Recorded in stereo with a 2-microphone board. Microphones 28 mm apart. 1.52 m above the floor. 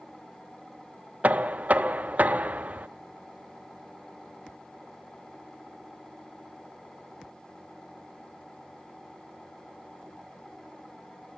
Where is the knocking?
60° right (ahead or behind), 0.8 m.